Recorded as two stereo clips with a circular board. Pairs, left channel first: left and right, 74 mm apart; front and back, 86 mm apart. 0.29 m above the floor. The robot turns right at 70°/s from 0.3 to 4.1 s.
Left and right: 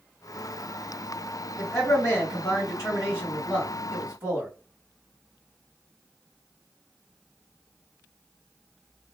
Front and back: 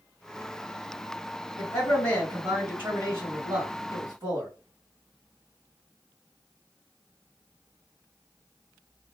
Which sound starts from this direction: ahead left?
A man speaking, at 1.6 s.